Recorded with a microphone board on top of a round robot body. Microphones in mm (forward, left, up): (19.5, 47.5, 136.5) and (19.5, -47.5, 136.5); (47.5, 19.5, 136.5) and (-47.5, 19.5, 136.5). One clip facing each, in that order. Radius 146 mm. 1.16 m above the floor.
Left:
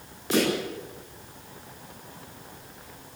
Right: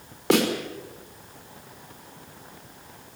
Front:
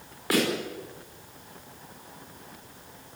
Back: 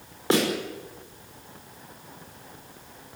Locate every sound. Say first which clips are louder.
0.3 s a snare drum: right 3 dB, back 2 dB; 115° right, 5.5 m